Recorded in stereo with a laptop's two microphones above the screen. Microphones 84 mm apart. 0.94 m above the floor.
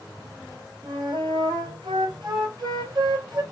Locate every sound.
0.8 s a flute: 60° right (ahead or behind), 2 m